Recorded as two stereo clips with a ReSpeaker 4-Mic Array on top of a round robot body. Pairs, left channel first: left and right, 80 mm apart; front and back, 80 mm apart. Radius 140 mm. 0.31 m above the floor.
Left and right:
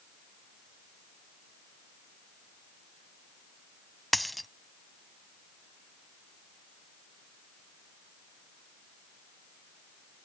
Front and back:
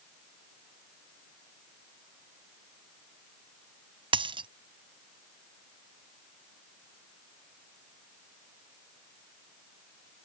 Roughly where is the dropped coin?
Behind.